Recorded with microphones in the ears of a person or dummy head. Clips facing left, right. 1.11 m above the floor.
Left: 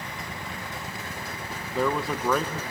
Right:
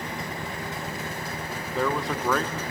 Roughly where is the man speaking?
Centre.